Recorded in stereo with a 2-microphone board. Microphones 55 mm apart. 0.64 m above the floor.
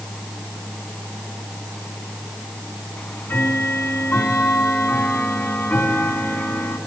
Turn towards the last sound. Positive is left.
turn(degrees=40)  # may be behind; listen again after turning